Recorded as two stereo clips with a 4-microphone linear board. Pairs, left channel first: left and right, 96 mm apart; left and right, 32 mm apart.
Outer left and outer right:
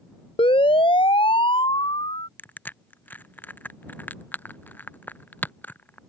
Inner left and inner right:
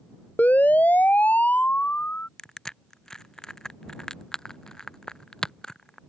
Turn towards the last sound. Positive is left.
turn(degrees=20)  # may be behind; listen again after turning